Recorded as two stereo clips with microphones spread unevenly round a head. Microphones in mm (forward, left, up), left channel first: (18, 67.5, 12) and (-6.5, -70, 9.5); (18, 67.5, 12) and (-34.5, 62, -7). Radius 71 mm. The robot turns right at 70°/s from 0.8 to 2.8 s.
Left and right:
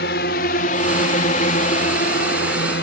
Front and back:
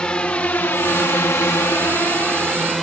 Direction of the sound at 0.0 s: 75° left.